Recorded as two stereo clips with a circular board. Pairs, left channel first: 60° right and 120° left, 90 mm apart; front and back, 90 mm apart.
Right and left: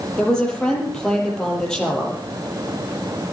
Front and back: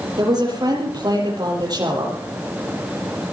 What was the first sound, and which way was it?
A woman speaking, 140° right.